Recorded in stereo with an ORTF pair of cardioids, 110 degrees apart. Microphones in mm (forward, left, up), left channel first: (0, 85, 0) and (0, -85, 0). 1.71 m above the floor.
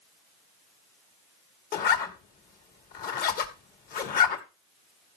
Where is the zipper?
60° left, 2 m.